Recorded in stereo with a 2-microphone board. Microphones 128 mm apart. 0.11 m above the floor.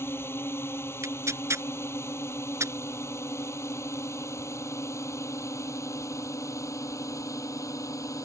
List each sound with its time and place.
0.0 s a drone: 20° left (ahead or behind); by 8.3 s 25° left (ahead or behind)
1.0 s tearing paper: 25° right (ahead or behind)